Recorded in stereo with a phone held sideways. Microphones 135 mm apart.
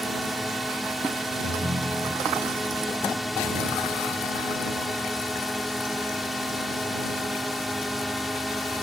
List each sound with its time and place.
0.0 s a drone: centre (ahead or behind)
1.4 s a ringtone: 75° right (ahead or behind)